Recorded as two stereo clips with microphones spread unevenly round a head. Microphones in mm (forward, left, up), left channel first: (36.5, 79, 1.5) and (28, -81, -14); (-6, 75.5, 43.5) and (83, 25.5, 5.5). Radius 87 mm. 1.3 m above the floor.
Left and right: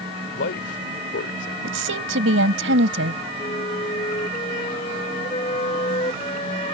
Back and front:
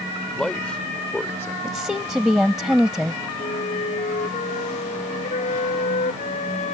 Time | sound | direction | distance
0.3 | a man speaking | 70° left | ?
1.6 | a woman speaking | 120° right | ?
3.4 | a flute | 150° left | ?